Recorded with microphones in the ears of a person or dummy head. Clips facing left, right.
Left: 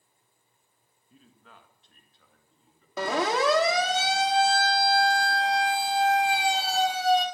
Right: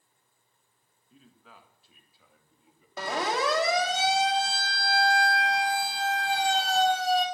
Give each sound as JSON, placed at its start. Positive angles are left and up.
{"t": 1.1, "sound": "a man speaking", "side_deg": 0, "distance_m": 1.6}
{"t": 3.0, "sound": "a siren", "side_deg": 75, "distance_m": 2.5}